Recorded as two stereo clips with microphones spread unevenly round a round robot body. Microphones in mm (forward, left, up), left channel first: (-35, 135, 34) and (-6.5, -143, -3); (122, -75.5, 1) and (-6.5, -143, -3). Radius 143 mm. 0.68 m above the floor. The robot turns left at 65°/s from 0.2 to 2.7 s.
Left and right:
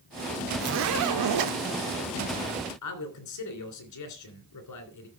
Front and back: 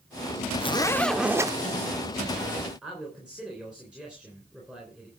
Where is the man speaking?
120° left, 3 m.